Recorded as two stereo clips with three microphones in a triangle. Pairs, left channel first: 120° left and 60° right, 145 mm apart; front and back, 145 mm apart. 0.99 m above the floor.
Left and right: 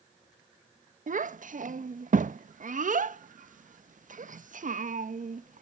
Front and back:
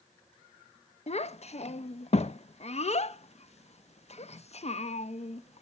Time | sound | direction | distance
1.1 | a child speaking | 35° right | 0.5 m